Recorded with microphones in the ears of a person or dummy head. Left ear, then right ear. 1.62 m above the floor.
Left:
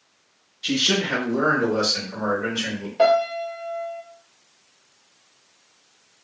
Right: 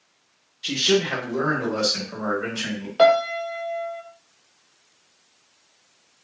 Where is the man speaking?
5° left (ahead or behind), 1.1 m; by 2.9 s 25° right (ahead or behind), 1.9 m.